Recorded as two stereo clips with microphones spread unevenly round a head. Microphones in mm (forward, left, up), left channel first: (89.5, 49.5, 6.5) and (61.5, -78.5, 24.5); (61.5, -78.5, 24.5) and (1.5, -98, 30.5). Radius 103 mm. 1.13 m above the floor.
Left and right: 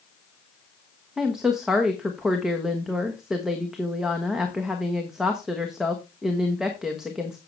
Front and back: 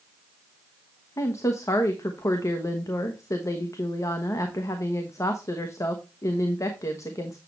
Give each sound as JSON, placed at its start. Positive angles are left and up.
{"t": 1.2, "sound": "a woman speaking", "azimuth_deg": -15, "distance_m": 1.3}